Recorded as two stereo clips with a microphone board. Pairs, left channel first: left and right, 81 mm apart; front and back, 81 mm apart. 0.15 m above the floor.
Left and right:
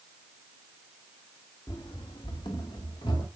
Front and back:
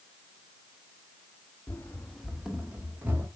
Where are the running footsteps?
55° left, 1.0 m; by 3.3 s 115° left, 3 m.